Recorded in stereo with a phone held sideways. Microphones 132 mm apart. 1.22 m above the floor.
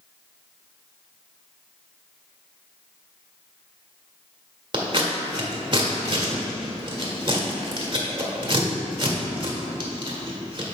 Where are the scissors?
40° right (ahead or behind), 1.3 m.